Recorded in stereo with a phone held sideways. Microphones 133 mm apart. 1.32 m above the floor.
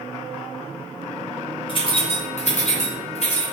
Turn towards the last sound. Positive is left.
turn(degrees=50)  # may be behind; listen again after turning